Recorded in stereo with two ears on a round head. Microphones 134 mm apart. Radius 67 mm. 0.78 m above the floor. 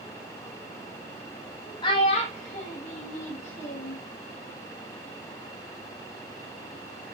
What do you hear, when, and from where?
1.8 s a child speaking: 30° left (ahead or behind), 0.7 m; by 4.0 s 45° left (ahead or behind), 1.2 m